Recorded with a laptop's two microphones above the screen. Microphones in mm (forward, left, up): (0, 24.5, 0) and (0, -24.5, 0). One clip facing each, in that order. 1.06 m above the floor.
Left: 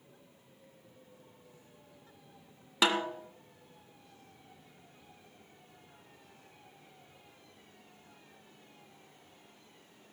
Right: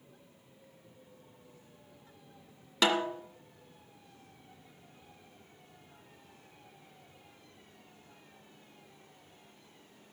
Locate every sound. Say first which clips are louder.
2.8 s a snare drum: right 1 dB; 10° left (ahead or behind), 1.7 m